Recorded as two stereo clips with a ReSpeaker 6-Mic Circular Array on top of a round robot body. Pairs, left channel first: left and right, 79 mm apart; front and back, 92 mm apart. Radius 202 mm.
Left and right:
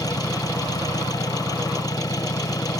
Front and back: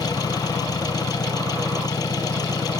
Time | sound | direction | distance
0.0 | an engine running | 50° left | ?